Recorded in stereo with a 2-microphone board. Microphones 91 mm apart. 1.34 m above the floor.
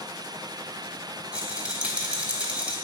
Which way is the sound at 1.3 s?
15° right (ahead or behind).